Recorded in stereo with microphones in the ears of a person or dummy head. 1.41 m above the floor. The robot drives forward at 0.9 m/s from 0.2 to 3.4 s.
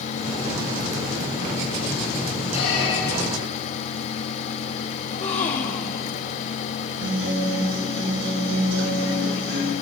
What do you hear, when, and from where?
2.5 s a squeak: 75° left (ahead or behind), 3 m; by 3.4 s 70° left (ahead or behind), 3.5 m
5.0 s a gasp: 35° left (ahead or behind), 1.1 m
7.0 s a guitar: 65° right (ahead or behind), 7 m